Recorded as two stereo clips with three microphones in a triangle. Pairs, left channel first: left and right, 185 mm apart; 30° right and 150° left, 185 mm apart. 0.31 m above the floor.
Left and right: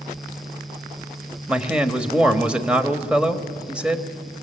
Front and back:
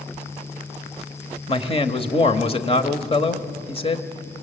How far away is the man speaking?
About 1.3 m.